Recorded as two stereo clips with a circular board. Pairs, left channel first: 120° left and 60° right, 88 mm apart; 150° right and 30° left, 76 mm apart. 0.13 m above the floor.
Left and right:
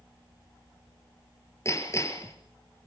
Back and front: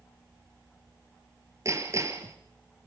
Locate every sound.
1.6 s hammering: 70° left, 2 m